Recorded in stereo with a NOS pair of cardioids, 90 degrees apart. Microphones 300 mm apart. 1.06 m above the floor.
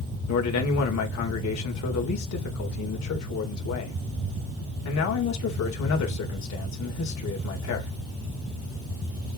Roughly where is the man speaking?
Ahead left.